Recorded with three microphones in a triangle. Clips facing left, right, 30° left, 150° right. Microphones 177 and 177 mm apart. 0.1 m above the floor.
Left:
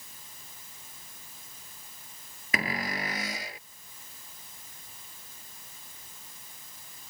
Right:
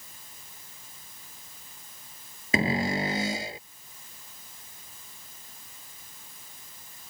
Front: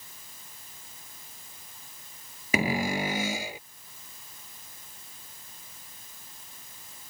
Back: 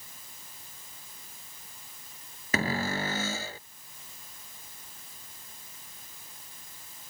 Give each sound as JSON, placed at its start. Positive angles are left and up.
{"t": 2.5, "sound": "a cupboard door", "azimuth_deg": -40}